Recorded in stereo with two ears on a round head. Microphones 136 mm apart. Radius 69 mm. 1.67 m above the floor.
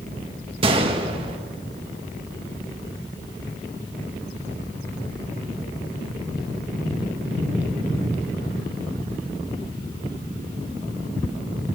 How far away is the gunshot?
About 1.9 m.